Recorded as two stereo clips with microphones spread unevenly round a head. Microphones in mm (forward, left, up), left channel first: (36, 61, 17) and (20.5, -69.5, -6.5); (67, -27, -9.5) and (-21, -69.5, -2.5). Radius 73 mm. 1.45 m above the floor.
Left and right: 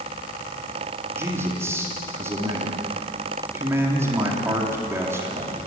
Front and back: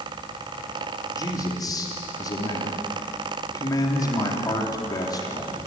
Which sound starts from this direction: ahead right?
A man speaking, at 1.1 s.